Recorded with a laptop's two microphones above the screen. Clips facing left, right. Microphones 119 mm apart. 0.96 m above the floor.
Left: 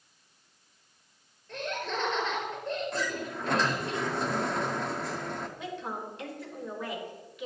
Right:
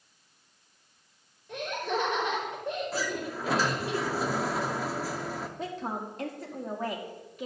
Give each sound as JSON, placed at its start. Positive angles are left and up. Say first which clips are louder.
{"t": 1.5, "sound": "laughter", "louder": "right 3 dB", "side_deg": -15, "distance_m": 4.5}
{"t": 2.9, "sound": "a sliding door", "louder": "right 1 dB", "side_deg": -5, "distance_m": 0.6}
{"t": 5.6, "sound": "a woman speaking", "louder": "right 2 dB", "side_deg": -40, "distance_m": 2.0}